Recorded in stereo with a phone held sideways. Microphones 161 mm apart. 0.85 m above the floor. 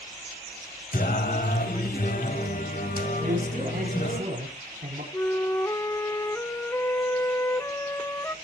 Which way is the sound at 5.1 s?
15° left (ahead or behind).